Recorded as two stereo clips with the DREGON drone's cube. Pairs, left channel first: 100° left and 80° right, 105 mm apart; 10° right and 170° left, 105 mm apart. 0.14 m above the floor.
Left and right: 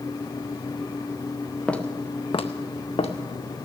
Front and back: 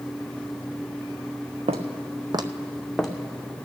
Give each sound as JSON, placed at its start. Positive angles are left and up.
{"t": 1.7, "sound": "footsteps", "azimuth_deg": 175, "distance_m": 0.9}